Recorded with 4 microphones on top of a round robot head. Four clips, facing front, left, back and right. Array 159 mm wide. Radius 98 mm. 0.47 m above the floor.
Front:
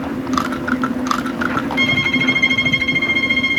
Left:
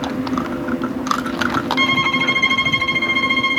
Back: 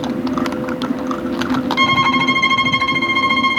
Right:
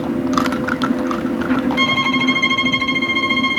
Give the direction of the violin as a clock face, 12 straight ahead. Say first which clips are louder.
Right 1 dB, back 4 dB; 6 o'clock.